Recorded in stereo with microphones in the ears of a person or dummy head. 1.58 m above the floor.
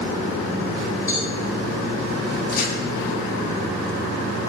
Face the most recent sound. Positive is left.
turn(degrees=60)  # may be behind; listen again after turning